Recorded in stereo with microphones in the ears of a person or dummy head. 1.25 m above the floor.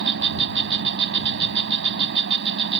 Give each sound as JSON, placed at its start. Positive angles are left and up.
{"t": 0.0, "sound": "an insect", "side_deg": -70}